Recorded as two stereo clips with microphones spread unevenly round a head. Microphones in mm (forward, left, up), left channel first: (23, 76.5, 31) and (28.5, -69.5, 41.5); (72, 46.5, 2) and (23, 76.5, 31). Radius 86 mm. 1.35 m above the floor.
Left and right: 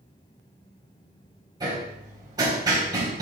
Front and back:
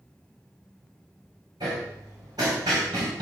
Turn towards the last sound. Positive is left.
turn(degrees=-155)